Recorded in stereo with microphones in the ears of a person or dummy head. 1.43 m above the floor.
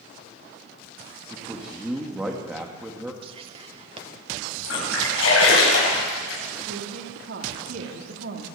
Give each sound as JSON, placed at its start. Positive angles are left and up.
{"t": 1.3, "sound": "a man speaking", "side_deg": -10, "distance_m": 1.7}
{"t": 3.2, "sound": "whispering", "side_deg": -30, "distance_m": 1.3}
{"t": 4.6, "sound": "a splash", "side_deg": 90, "distance_m": 9.5}
{"t": 6.7, "sound": "a woman speaking", "side_deg": -80, "distance_m": 3.0}